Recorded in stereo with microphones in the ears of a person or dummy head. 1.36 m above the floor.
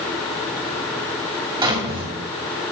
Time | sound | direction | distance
1.6 | a drawer | 25° right (ahead or behind) | 2 m